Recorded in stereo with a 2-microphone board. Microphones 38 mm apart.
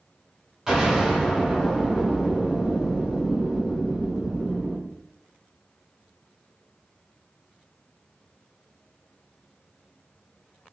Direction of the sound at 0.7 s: 15° right (ahead or behind).